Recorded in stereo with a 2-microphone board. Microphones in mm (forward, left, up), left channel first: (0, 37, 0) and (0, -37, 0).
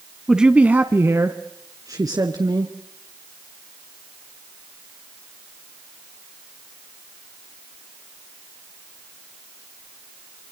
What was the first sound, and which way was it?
A man speaking, 5° right (ahead or behind).